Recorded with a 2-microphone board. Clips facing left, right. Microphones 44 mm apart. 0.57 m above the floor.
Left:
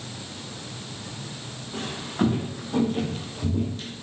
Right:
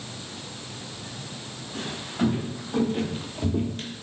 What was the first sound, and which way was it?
Footsteps, 45° left (ahead or behind).